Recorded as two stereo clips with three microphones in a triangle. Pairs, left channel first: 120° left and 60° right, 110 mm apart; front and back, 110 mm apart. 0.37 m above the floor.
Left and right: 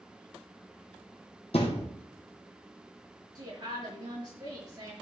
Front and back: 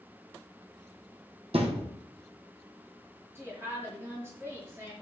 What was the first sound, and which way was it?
A thud, 150° left.